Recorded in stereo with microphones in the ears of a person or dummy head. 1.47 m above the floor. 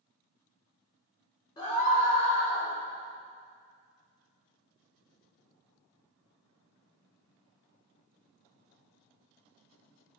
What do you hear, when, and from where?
1.6 s a scream: 25° left (ahead or behind), 1.3 m; by 2.7 s 85° left, 1.9 m